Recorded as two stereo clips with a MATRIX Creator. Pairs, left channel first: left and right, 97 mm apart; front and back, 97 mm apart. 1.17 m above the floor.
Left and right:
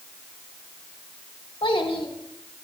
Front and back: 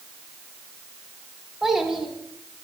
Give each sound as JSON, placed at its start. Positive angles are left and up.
{"t": 1.6, "sound": "a child speaking", "azimuth_deg": 95, "distance_m": 1.9}